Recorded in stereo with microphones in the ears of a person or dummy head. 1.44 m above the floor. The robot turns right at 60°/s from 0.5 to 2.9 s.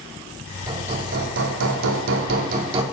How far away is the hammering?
About 3 m.